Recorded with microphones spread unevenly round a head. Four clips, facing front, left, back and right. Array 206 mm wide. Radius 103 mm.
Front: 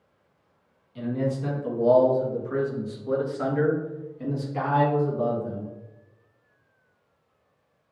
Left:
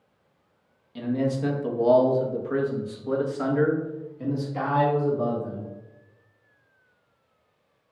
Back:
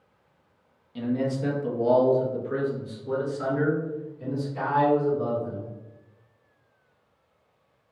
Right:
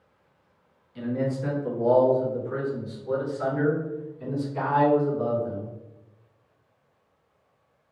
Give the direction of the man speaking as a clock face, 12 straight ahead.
8 o'clock.